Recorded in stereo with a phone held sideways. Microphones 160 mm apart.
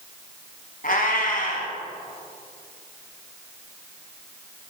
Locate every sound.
0.8 s a cat meowing: 60° left (ahead or behind), 2.5 m